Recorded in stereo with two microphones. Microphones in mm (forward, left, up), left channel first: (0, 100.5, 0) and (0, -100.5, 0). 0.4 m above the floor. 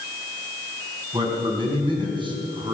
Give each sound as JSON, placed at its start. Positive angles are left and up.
{"t": 1.1, "sound": "a man speaking", "side_deg": -25, "distance_m": 4.5}